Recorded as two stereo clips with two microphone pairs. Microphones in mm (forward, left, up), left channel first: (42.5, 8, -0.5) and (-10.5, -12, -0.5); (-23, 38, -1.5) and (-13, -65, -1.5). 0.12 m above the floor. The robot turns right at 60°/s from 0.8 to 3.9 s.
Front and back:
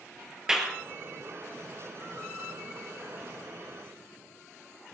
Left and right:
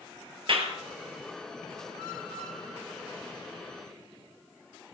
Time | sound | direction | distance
0.5 | a clap | 80° right | 2 m